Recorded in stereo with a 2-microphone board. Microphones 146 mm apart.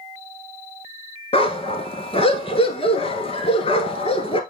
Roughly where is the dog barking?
Left.